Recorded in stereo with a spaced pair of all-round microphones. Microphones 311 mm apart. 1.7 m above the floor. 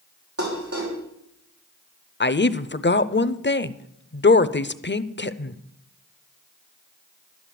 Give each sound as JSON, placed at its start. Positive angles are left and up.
{"t": 0.4, "sound": "dishes clattering", "side_deg": -50, "distance_m": 4.0}
{"t": 2.2, "sound": "a woman speaking", "side_deg": 35, "distance_m": 0.6}